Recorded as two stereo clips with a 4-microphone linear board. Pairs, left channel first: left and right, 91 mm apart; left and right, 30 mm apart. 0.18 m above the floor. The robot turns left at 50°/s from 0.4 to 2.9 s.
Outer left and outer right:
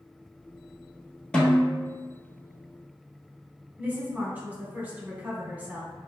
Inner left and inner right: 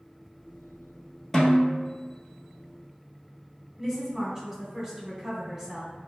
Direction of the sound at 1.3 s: 10° left.